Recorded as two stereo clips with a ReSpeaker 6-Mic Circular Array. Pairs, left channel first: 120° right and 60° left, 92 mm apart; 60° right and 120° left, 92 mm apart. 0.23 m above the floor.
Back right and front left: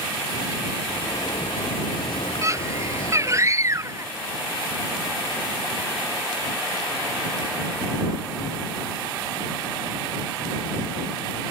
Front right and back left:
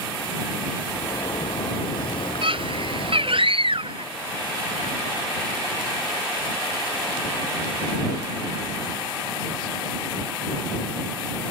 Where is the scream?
115° left.